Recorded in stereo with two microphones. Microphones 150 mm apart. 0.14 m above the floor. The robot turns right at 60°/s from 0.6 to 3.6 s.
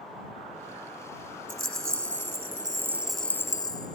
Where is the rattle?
100° right; by 4.0 s 30° left.